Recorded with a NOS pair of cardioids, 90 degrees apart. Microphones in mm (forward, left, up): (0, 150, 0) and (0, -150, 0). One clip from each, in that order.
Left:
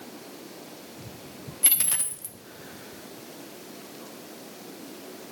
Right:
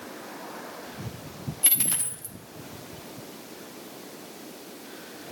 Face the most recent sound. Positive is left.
turn(degrees=10)